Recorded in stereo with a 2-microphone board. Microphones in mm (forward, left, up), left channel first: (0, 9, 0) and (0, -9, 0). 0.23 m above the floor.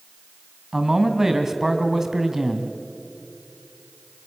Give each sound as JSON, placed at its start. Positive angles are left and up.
{"t": 0.7, "sound": "a man speaking", "side_deg": -20, "distance_m": 2.0}